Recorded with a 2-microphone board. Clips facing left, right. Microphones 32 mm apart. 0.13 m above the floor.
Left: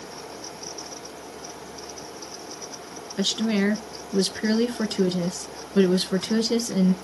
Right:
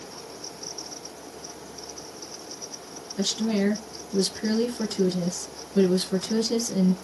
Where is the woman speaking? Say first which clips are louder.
Left 2 dB; 35° left (ahead or behind), 1.3 m.